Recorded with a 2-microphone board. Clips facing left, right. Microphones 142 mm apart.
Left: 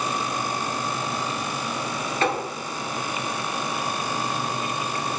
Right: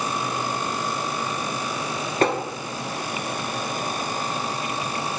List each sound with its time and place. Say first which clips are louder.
2.2 s tapping: right 3 dB; 45° right (ahead or behind), 0.7 m